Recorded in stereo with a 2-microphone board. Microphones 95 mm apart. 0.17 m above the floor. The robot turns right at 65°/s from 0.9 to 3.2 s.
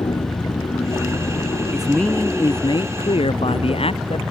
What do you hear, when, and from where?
0.0 s an aircraft: 65° left; by 4.3 s 145° right
1.7 s a man speaking: 10° right; by 4.2 s 85° left